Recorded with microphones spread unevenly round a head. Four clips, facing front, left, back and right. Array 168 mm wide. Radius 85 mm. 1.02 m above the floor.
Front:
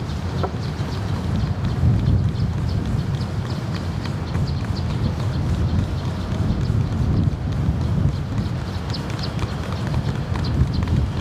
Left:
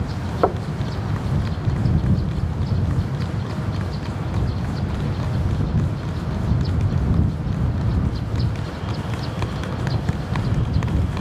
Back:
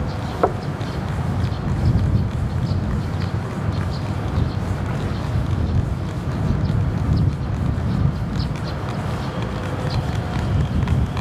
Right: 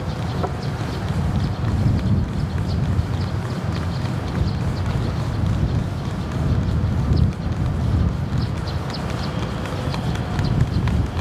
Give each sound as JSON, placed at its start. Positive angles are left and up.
{"t": 0.4, "sound": "knocking", "azimuth_deg": 135}